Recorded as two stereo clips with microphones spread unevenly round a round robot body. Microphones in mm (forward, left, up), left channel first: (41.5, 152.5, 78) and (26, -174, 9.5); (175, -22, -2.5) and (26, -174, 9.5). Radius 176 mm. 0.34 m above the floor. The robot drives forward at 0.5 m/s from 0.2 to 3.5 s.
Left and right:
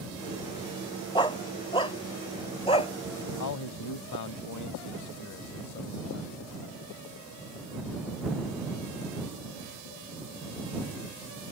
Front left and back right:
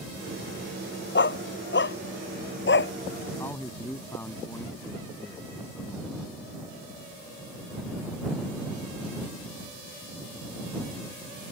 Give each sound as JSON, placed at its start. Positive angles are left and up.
{"t": 1.1, "sound": "a dog barking", "azimuth_deg": 10}
{"t": 3.4, "sound": "a man speaking", "azimuth_deg": 125}